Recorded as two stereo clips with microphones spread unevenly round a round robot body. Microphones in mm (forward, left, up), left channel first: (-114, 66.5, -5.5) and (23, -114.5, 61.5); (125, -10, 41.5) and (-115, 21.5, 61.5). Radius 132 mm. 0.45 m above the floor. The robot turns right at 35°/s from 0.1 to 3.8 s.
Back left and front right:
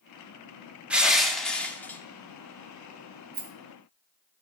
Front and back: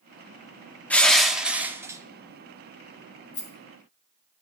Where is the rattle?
40° right, 2.5 m; by 3.5 s 35° right, 2.5 m.